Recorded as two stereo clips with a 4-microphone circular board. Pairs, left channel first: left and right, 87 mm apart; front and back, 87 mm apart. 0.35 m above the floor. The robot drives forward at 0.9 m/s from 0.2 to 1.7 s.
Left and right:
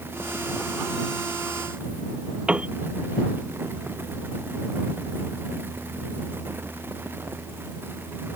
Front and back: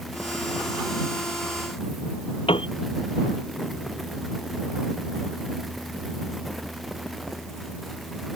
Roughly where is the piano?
Ahead.